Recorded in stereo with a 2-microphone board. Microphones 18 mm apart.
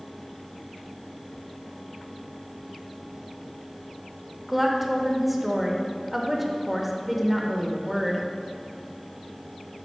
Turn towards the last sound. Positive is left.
turn(degrees=-10)  # may be behind; listen again after turning